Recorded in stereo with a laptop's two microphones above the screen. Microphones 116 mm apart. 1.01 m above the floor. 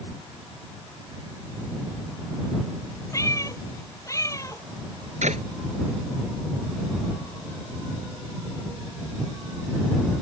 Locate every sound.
3.1 s a cat meowing: 25° left (ahead or behind)
5.2 s a clap: 85° right